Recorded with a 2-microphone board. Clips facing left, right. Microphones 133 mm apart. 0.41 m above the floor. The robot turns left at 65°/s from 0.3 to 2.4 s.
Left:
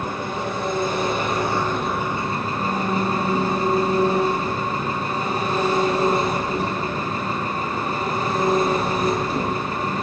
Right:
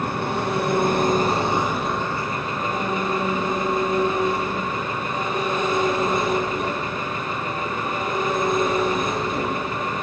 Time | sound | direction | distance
0.0 | an engine running | 80° right | 4 m